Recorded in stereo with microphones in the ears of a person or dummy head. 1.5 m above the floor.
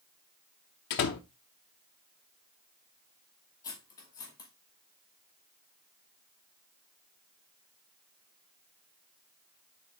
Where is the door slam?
40° left (ahead or behind), 0.6 m.